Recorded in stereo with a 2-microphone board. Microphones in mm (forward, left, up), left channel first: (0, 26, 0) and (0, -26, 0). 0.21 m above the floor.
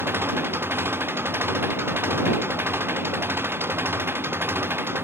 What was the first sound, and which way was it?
An engine running, 55° right (ahead or behind).